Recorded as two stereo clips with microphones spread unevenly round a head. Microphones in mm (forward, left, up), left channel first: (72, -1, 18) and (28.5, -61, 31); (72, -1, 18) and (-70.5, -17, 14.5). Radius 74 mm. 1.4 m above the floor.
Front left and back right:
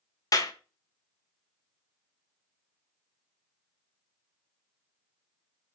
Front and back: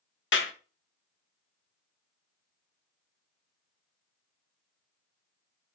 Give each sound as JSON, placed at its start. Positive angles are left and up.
{"t": 0.3, "sound": "a clap", "azimuth_deg": 15, "distance_m": 1.4}